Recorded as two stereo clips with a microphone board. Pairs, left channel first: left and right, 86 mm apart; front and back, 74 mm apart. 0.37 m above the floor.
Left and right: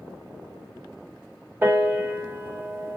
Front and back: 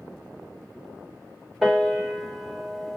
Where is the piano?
100° right, 1.3 m.